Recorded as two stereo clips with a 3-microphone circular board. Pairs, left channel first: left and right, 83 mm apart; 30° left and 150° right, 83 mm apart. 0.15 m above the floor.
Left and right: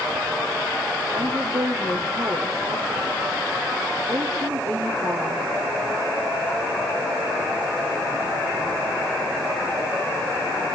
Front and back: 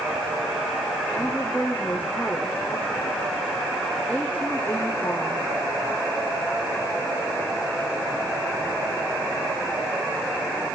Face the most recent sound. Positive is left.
turn(degrees=-40)